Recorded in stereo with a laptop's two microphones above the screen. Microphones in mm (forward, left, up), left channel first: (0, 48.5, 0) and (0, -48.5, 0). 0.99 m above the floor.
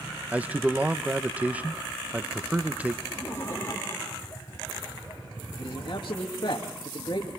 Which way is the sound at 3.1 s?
30° left (ahead or behind).